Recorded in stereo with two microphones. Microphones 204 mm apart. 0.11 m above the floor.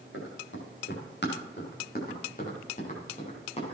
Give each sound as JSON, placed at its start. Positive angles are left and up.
{"t": 0.1, "sound": "running footsteps", "side_deg": 70, "distance_m": 7.5}